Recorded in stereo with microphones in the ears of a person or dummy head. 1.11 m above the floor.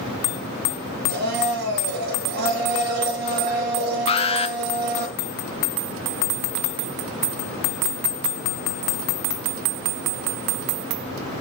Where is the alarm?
25° left (ahead or behind), 0.6 m.